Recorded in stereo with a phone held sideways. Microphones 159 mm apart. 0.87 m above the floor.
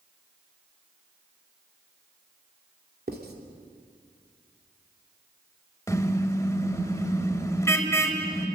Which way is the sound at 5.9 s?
15° left (ahead or behind).